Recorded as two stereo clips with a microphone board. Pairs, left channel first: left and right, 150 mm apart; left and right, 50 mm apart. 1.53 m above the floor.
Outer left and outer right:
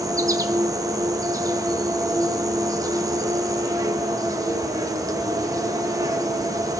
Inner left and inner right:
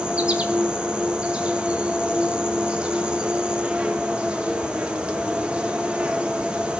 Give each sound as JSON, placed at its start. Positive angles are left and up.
{"t": 0.0, "sound": "an insect", "side_deg": -25, "distance_m": 0.9}